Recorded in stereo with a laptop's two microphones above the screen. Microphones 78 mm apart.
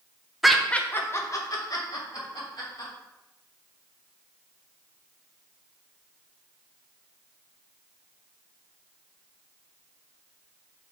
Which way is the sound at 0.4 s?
5° right (ahead or behind).